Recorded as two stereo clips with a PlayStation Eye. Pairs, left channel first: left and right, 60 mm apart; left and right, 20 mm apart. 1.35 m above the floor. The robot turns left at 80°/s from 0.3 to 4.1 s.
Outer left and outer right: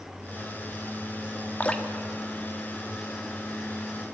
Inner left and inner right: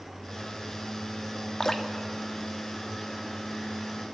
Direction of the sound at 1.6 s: 30° left (ahead or behind).